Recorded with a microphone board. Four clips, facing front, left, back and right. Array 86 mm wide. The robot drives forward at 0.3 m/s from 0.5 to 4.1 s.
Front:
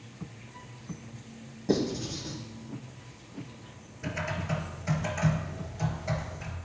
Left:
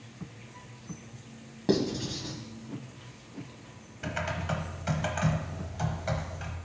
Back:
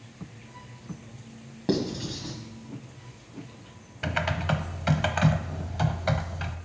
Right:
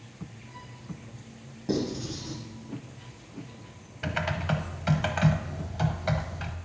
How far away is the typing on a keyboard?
About 0.7 m.